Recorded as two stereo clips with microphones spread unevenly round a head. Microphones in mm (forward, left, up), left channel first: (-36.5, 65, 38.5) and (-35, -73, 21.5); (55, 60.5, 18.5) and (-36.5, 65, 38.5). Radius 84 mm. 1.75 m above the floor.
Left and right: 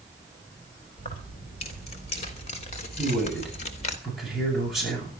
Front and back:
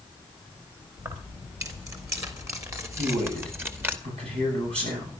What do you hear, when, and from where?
1.0 s keys jangling: 130° left, 4.5 m; by 4.0 s 120° left, 2 m
3.0 s a man speaking: straight behind, 9.5 m